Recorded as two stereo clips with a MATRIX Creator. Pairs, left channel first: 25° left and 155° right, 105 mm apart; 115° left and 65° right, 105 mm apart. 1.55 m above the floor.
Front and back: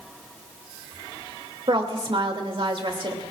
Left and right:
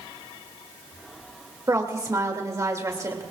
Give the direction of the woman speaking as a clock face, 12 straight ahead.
4 o'clock.